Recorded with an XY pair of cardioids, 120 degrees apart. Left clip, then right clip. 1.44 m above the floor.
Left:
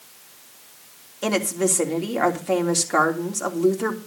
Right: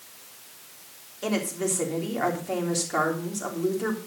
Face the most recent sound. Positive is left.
turn(degrees=40)